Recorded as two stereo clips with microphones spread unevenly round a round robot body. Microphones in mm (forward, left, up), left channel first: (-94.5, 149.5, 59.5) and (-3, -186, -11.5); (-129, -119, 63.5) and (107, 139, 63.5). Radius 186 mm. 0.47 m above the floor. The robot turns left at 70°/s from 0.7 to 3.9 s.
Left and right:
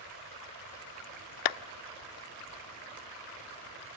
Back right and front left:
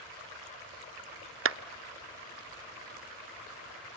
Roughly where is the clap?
Left.